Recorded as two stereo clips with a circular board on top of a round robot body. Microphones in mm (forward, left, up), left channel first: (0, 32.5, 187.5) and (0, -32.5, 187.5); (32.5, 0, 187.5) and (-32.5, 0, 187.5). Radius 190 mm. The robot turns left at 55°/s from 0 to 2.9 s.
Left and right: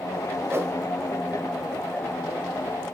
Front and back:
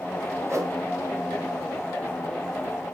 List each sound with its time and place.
0.5 s a whoosh: 140° right, 2.5 m; by 0.8 s 155° right, 2.5 m